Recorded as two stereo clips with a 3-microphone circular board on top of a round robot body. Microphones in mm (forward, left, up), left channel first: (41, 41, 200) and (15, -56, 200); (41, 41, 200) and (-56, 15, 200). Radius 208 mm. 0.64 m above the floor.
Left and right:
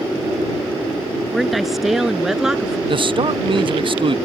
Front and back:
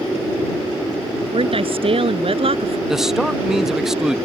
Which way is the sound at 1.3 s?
165° left.